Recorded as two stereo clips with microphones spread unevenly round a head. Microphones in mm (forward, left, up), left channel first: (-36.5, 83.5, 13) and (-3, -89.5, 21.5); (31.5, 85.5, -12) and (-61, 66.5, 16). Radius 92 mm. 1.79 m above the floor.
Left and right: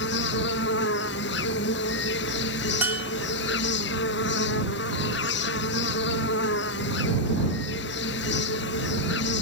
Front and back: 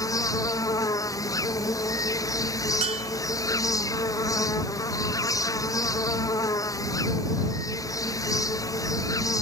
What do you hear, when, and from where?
0.0 s an insect: 65° left
2.8 s a bell: 160° right